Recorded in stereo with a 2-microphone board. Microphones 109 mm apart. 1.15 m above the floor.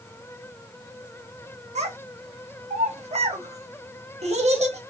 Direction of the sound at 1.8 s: 75° right (ahead or behind).